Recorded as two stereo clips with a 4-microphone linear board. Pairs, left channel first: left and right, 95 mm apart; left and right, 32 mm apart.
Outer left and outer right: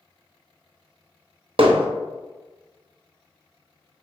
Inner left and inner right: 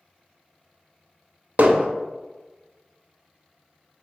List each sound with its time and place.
1.6 s hammering: 70° right (ahead or behind), 0.6 m